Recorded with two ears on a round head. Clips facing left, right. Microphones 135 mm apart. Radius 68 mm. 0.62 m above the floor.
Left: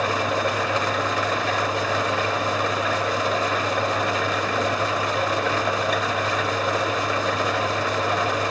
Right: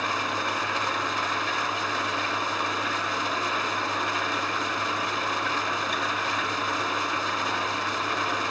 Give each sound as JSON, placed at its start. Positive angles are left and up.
{"t": 0.0, "sound": "an engine running", "side_deg": 60, "distance_m": 1.5}